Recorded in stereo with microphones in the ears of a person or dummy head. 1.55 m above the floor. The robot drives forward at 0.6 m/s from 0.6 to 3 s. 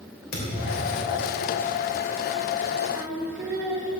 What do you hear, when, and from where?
0.3 s a thud: 75° left (ahead or behind), 3.5 m
2.9 s singing: centre (ahead or behind), 2 m